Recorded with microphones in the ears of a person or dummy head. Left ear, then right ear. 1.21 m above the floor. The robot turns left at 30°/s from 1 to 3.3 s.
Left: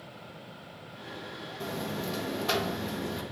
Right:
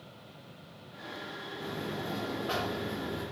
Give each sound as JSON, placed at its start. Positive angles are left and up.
{"t": 1.6, "sound": "a buzzer", "azimuth_deg": 90, "distance_m": 1.2}